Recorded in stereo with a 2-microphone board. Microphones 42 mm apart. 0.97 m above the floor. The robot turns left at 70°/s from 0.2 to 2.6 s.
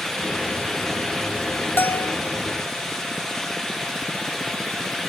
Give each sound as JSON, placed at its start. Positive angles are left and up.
{"t": 1.8, "sound": "a bell", "azimuth_deg": 105, "distance_m": 0.6}